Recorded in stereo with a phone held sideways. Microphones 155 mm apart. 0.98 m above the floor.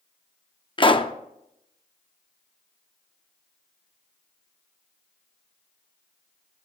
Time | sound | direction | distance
0.8 | a pop | 35° left (ahead or behind) | 0.6 m